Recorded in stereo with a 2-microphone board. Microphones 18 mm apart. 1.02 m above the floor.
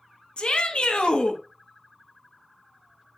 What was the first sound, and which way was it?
A shout, 65° left (ahead or behind).